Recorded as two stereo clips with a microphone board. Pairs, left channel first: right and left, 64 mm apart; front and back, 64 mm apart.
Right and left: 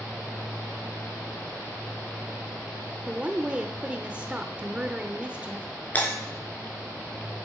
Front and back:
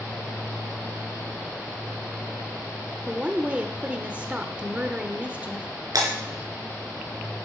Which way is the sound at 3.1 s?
135° left.